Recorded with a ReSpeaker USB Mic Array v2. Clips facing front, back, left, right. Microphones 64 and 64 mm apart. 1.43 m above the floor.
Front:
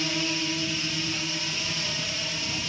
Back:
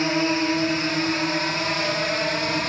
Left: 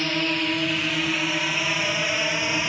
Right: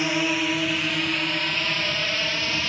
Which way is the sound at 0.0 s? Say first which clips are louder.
Back 8 dB, right 1 dB; 165° right.